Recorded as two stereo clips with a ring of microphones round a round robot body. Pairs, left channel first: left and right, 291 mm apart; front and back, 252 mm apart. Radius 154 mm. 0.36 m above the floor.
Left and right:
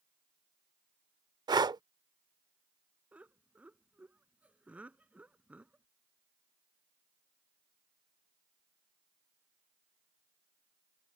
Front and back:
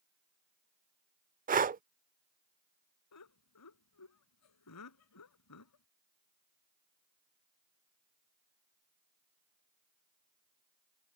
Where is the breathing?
155° right.